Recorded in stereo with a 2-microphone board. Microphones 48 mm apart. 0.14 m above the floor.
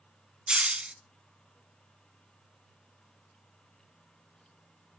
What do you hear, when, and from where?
0.5 s a hiss: 20° right (ahead or behind), 0.6 m